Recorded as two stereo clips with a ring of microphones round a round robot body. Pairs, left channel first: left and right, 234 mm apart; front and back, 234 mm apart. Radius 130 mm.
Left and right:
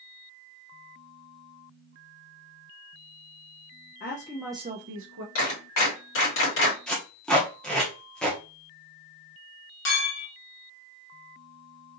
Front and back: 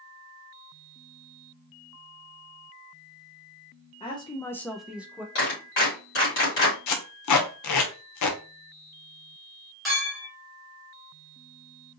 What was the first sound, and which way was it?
A woman speaking, 65° left.